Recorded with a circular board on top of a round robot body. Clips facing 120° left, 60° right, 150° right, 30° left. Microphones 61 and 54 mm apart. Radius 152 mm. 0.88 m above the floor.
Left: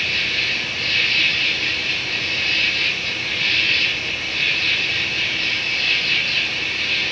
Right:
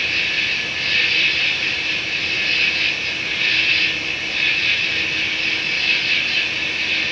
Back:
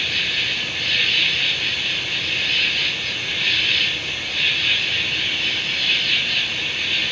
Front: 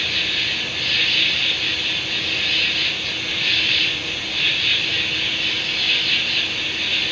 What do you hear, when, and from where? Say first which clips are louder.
0.0 s an insect: right 1 dB, even; 85° right, 0.8 m